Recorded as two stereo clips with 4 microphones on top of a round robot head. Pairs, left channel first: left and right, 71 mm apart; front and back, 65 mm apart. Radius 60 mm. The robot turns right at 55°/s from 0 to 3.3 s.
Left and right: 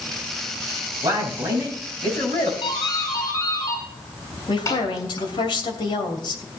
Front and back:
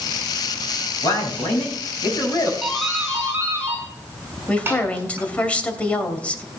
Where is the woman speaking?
70° left, 2.5 m.